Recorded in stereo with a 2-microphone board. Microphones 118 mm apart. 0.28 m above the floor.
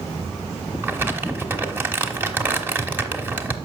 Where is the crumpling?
15° right (ahead or behind), 1.1 m.